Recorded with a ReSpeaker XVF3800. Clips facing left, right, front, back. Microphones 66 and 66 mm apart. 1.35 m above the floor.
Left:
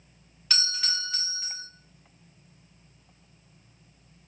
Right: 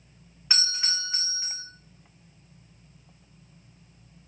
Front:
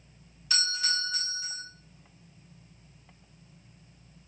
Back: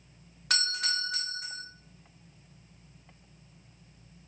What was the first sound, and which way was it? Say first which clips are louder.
A doorbell: even, even; 155° right.